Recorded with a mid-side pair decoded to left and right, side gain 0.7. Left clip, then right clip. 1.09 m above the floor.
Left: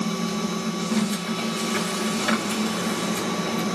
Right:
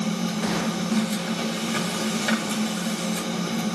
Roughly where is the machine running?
Ahead.